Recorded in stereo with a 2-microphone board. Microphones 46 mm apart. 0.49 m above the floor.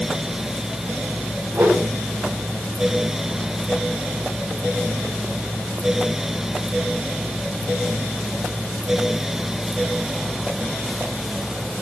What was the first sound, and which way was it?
A whoosh, 70° right (ahead or behind).